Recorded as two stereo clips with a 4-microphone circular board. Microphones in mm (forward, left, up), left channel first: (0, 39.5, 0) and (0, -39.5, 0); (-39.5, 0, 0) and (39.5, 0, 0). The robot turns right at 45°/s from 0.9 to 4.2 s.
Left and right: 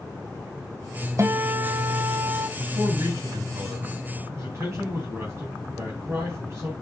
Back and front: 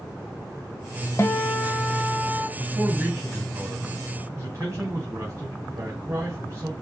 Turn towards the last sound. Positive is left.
turn(degrees=-40)